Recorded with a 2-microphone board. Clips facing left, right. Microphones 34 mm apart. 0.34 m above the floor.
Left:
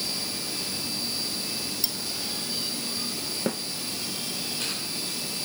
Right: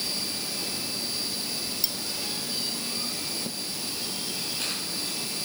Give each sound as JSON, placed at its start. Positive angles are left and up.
{"t": 1.8, "sound": "cutlery clinking", "side_deg": -5}
{"t": 3.5, "sound": "a snare drum", "side_deg": 65}